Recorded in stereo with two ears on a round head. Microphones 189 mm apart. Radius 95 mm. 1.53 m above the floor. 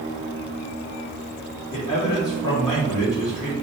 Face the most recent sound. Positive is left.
turn(degrees=20)  # may be behind; listen again after turning